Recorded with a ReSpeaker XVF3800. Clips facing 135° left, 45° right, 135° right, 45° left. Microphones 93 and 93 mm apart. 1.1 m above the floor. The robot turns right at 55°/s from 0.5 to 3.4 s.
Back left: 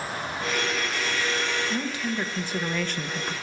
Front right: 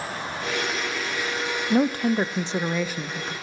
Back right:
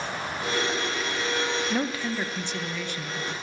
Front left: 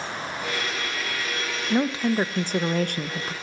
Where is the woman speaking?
30° right, 0.6 m; by 3.3 s 60° left, 0.6 m.